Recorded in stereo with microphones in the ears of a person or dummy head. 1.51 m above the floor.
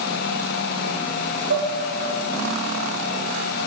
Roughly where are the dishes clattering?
Right.